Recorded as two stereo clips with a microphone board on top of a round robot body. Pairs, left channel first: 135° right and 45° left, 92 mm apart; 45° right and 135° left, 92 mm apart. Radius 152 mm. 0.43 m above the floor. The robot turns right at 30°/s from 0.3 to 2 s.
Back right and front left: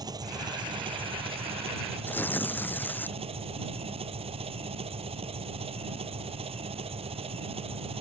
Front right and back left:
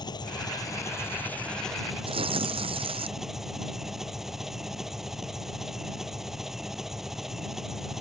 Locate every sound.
0.0 s an engine running: straight ahead; by 8.0 s 50° left
2.1 s tearing paper: 155° left